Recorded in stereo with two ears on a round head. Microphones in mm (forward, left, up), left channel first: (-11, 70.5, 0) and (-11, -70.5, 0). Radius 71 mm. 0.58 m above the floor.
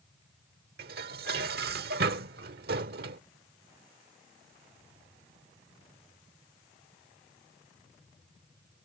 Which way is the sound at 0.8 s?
70° right (ahead or behind).